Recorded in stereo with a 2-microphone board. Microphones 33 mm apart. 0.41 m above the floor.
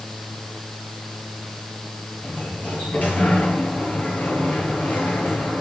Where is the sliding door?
55° left (ahead or behind), 5 m.